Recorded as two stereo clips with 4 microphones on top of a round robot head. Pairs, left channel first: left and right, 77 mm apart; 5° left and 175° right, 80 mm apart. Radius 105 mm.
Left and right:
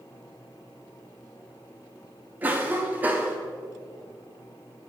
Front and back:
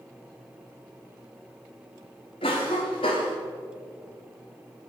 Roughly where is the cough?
Ahead right.